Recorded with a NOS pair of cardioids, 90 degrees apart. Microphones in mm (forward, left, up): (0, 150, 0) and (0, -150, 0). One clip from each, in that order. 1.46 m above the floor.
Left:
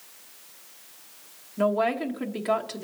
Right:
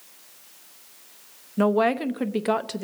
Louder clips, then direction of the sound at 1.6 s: Right 3 dB; 35° right.